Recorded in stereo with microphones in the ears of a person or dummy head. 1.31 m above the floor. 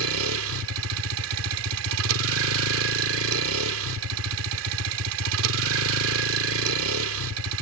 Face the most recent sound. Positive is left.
turn(degrees=-75)  # may be behind; listen again after turning